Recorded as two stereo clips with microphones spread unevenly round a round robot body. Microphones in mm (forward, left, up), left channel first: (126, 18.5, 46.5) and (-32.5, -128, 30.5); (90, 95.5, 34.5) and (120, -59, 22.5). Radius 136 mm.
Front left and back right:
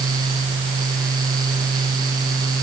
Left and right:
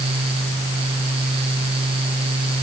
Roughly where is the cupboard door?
No cupboard door in this recording.